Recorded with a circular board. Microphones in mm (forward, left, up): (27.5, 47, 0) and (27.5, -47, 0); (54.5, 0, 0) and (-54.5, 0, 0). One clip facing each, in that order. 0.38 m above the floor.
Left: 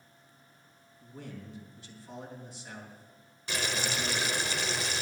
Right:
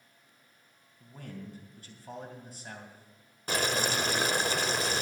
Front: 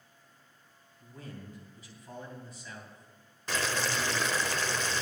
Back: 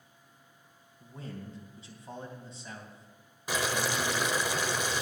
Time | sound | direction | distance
1.0 | a man speaking | 120° right | 2.5 m
3.5 | boiling | 105° right | 0.7 m